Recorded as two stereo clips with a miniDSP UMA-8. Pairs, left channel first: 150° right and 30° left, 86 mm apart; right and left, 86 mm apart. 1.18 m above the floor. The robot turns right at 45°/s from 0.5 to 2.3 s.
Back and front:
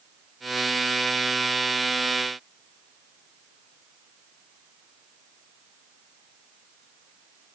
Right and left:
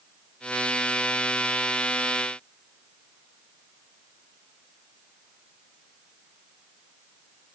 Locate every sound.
Only background noise.